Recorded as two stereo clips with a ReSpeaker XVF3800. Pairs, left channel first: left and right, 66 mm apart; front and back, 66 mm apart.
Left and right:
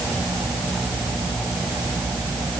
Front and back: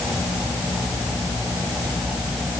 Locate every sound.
Only background noise.